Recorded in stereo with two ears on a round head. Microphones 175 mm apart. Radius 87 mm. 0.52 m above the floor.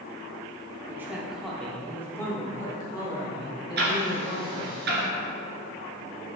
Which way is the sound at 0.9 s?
15° right (ahead or behind).